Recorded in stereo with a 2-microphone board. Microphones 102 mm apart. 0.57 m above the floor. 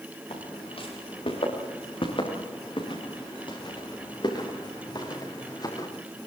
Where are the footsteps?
70° left (ahead or behind), 8 m; by 5.9 s 40° left (ahead or behind), 6.5 m.